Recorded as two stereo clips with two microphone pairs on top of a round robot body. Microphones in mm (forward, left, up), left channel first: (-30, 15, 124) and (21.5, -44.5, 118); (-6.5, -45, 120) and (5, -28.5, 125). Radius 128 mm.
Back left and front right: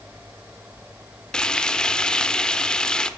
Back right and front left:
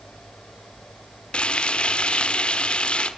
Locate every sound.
1.3 s frying: 150° right, 1.4 m